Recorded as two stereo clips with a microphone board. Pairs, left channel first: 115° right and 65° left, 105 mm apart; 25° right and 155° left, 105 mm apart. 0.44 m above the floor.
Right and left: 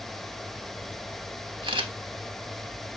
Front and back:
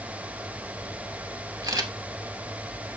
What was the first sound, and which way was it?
A camera shutter, 105° left.